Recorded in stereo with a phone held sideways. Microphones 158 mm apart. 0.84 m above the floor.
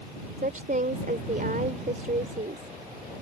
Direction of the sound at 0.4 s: 60° right (ahead or behind).